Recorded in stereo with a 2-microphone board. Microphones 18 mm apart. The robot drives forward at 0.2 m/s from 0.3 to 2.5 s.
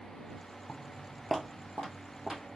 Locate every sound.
0.7 s footsteps: 40° left (ahead or behind), 0.8 m; by 2.6 s 60° right (ahead or behind), 1.8 m